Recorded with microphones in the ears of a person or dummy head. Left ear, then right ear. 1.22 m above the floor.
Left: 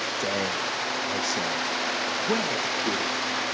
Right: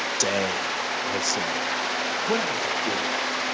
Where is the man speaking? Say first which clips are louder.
Right 4 dB; 55° right (ahead or behind), 0.8 m; by 3.1 s 5° left (ahead or behind), 3 m.